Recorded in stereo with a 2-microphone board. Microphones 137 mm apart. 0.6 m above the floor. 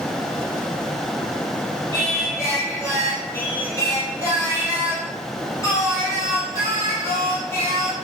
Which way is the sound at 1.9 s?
20° left (ahead or behind).